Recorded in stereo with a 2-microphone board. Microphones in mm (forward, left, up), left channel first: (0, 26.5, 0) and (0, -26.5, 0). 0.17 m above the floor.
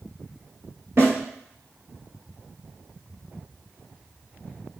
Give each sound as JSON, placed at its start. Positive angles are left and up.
{"t": 1.0, "sound": "a snare drum", "side_deg": -50, "distance_m": 1.3}